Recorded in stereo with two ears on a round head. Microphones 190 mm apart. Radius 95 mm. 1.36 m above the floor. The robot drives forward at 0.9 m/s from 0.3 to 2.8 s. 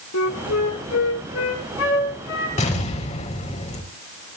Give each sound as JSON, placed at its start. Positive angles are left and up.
{"t": 0.1, "sound": "a flute", "side_deg": 80, "distance_m": 4.5}
{"t": 2.6, "sound": "an explosion", "side_deg": 35, "distance_m": 4.5}